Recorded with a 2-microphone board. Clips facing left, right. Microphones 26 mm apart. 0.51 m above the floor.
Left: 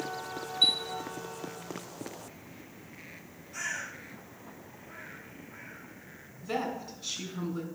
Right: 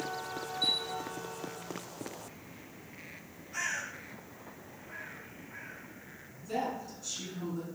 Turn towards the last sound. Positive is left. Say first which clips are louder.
# left 1 dB
turn(degrees=50)  # may be behind; listen again after turning